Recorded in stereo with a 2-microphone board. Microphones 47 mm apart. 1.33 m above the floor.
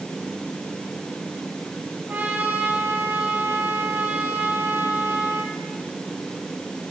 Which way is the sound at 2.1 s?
50° right (ahead or behind).